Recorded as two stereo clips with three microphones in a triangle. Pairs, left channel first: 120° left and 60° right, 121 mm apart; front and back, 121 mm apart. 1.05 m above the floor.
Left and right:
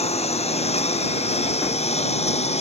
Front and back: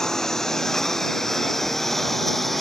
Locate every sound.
0.0 s a lawn mower: 85° left; by 2.6 s 90° left